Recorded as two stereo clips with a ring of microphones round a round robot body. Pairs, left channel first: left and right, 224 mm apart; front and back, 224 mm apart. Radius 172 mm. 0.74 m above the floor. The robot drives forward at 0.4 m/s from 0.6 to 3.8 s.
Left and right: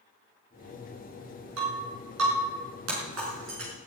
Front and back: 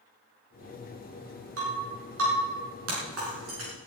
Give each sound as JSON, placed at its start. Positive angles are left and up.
{"t": 1.6, "sound": "breaking glass", "azimuth_deg": -130, "distance_m": 5.0}